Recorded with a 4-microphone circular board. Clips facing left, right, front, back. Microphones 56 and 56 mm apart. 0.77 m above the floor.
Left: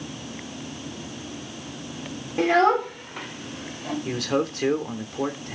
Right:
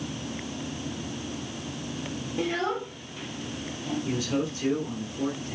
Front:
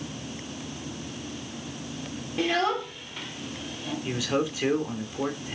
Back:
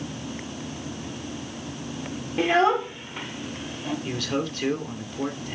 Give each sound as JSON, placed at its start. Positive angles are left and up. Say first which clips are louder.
{"t": 2.4, "sound": "a child speaking", "louder": "left 10 dB, back 5 dB", "azimuth_deg": 115, "distance_m": 1.2}
{"t": 4.0, "sound": "a man speaking", "louder": "left 4 dB, front 3 dB", "azimuth_deg": 80, "distance_m": 2.5}